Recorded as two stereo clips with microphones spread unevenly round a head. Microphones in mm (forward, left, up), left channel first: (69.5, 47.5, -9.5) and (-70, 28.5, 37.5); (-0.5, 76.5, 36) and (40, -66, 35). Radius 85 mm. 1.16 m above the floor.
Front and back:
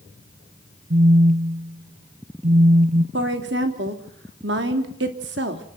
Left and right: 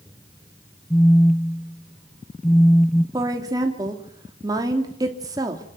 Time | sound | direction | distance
0.9 | a phone buzzing | 170° right | 0.7 m
3.1 | a woman speaking | 140° right | 3 m